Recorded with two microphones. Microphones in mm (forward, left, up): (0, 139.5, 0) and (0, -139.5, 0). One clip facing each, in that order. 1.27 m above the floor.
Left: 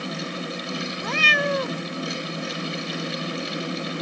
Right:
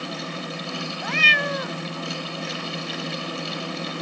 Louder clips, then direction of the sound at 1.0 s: Left 4 dB; 50° left (ahead or behind).